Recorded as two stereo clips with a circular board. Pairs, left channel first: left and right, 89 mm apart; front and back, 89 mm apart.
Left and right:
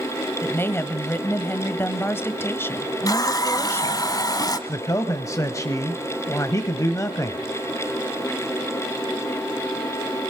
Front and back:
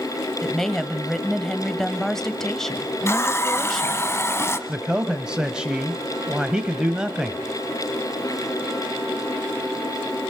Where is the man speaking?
105° left, 1.1 m.